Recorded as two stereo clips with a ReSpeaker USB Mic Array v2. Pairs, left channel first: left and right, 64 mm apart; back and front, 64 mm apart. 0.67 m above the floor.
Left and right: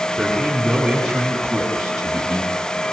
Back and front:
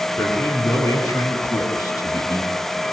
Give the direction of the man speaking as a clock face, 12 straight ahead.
6 o'clock.